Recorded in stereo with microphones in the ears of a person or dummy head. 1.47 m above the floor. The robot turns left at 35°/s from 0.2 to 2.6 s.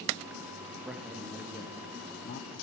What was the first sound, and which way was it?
A man speaking, 175° right.